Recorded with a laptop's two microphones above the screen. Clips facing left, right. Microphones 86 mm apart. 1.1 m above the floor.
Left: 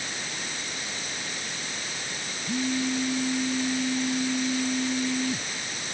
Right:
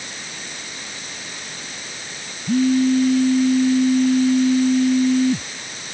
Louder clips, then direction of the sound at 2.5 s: Right 12 dB; 55° right (ahead or behind).